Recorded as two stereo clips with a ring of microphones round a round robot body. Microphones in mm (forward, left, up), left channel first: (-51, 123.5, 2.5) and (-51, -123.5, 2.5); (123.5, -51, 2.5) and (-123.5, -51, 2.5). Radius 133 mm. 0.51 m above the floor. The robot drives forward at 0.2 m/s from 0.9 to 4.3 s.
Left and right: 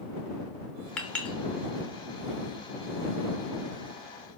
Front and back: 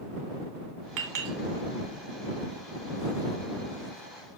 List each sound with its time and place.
1.0 s a clink: 175° left, 2.5 m